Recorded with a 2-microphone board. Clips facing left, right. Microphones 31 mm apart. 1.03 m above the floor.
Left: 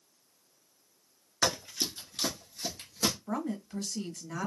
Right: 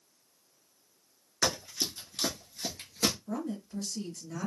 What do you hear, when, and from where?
1.4 s running footsteps: 20° left (ahead or behind), 1.0 m; by 3.1 s 25° right (ahead or behind), 1.2 m
3.3 s a woman speaking: 70° left (ahead or behind), 1.0 m